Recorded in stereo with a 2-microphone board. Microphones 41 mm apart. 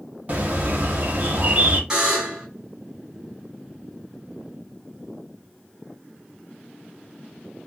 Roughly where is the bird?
Right.